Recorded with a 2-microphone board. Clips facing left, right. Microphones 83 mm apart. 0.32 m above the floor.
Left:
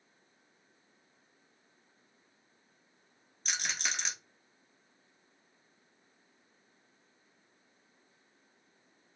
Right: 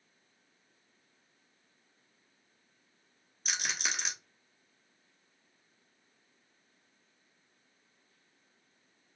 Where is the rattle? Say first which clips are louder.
Right 1 dB; 5° right (ahead or behind), 1.0 m.